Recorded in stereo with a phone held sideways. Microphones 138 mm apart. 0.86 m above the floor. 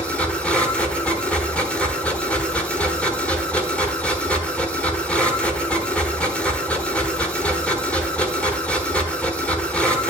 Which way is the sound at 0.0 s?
10° left (ahead or behind).